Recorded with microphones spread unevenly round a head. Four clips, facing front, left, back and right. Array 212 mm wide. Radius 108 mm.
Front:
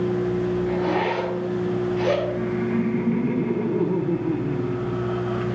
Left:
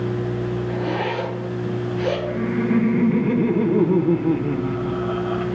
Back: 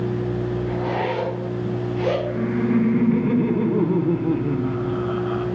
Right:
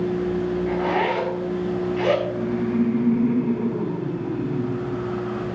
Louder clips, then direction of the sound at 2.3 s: Left 2 dB, back 2 dB; 110° left.